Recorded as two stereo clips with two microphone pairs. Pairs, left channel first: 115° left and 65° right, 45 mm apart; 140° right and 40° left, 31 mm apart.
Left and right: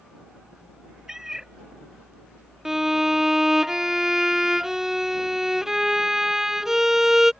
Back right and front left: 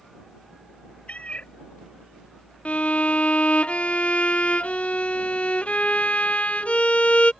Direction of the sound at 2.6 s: 145° right.